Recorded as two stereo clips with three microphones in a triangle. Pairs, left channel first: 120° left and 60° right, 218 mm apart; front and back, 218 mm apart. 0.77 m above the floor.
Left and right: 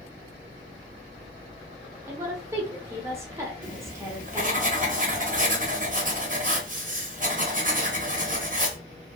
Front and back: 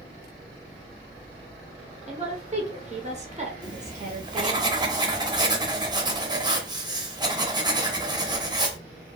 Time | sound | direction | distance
2.1 | a woman speaking | 130° right | 0.6 m
3.6 | writing | 105° right | 0.6 m